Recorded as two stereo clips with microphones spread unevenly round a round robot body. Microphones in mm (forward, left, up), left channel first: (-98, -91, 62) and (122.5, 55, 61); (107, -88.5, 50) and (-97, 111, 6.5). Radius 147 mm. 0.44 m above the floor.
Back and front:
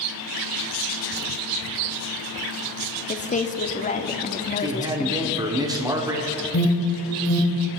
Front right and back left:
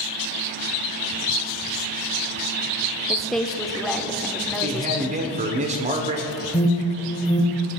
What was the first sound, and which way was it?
A woman speaking, 150° right.